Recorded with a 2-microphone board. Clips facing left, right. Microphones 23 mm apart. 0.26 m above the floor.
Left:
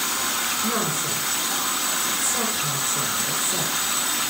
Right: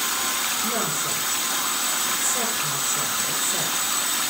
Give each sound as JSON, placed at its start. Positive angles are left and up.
{"t": 0.6, "sound": "a woman speaking", "side_deg": 75, "distance_m": 8.0}